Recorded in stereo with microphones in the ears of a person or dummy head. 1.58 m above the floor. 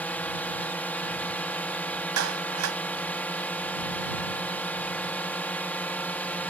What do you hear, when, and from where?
0.0 s a drone: 10° left (ahead or behind)
2.2 s a clap: 85° right